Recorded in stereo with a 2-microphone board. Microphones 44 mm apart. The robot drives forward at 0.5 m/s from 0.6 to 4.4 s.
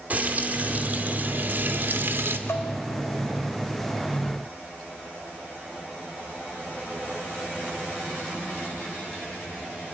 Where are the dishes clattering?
80° left, 2.5 m; by 2.7 s 85° left, 2.5 m.